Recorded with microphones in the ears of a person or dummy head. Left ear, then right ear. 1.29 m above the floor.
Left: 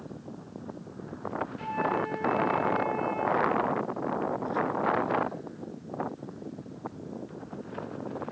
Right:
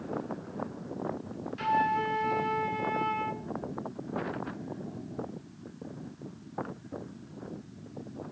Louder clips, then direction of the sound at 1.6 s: Right 4 dB; 20° right (ahead or behind).